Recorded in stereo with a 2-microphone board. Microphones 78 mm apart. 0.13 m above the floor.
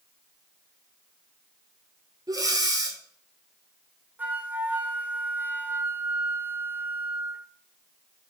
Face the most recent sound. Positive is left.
turn(degrees=-25)  # may be behind; listen again after turning